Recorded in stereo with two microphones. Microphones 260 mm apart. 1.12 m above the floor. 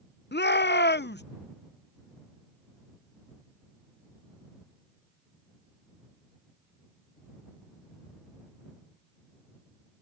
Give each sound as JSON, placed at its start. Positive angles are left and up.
{"t": 0.3, "sound": "a shout", "side_deg": 40}